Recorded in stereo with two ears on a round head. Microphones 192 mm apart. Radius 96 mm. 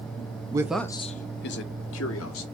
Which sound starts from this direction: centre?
A man speaking, at 0.5 s.